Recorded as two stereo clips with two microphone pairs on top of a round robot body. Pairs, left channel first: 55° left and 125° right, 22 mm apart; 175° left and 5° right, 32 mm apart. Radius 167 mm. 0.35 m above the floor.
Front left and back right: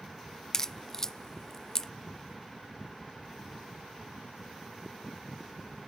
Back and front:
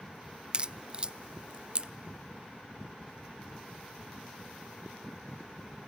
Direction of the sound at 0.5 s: 25° left.